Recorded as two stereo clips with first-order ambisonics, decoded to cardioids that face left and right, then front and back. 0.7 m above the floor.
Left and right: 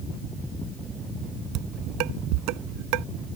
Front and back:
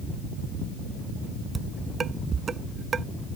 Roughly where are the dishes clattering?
Right.